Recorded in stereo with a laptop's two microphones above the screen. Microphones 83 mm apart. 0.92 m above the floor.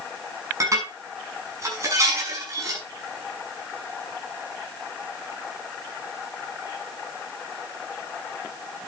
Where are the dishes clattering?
40° right (ahead or behind), 6 m.